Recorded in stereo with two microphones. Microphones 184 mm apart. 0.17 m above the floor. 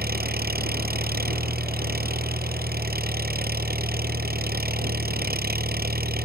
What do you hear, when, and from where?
0.0 s an engine running: 55° right (ahead or behind)